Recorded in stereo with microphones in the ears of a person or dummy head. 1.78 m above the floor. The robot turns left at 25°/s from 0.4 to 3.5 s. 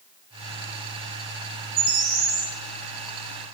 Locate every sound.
1.8 s a bird: 75° right (ahead or behind), 5.5 m